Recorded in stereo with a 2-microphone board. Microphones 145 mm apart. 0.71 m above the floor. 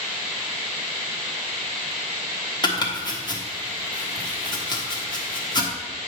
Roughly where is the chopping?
Left.